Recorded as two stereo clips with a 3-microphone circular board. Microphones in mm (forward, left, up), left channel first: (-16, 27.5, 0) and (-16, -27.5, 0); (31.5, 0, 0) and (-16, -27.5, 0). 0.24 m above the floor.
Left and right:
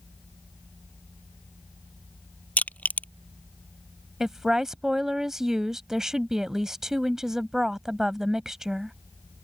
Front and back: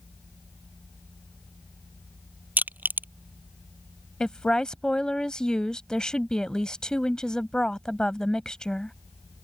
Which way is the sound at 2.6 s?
155° left.